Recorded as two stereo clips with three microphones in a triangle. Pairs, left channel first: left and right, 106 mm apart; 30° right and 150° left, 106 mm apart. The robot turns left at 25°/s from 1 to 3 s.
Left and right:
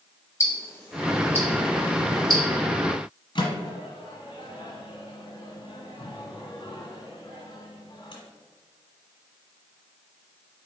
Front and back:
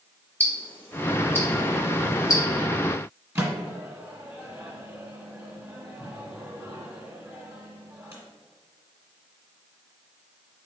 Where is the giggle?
I don't hear a giggle.